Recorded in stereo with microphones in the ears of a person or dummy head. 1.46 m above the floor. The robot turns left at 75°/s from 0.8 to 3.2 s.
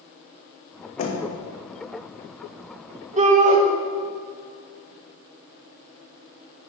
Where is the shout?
40° right (ahead or behind), 1.4 m; by 3.6 s 35° right (ahead or behind), 1.4 m.